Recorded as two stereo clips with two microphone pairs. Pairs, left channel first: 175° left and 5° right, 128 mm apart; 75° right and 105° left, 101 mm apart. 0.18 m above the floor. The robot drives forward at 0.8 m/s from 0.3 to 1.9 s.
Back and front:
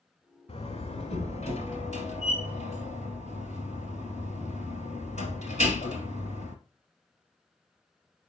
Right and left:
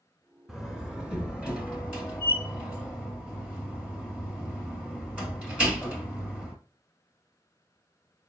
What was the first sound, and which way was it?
A door slam, 165° right.